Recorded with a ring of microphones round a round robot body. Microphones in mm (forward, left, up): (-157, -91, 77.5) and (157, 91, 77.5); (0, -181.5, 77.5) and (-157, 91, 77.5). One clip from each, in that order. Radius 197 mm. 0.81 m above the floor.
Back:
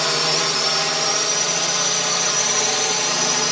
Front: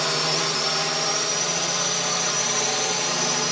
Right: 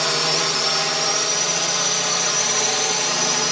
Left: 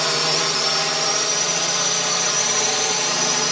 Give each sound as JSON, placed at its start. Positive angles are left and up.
{"t": 0.0, "sound": "a drone", "azimuth_deg": -160}